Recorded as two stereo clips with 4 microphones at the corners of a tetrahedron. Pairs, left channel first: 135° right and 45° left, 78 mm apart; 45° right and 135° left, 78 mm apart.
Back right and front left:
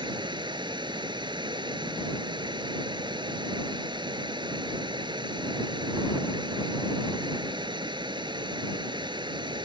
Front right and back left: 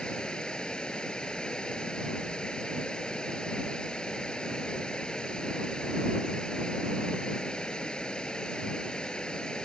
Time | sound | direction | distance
0.0 | running water | 35° left | ?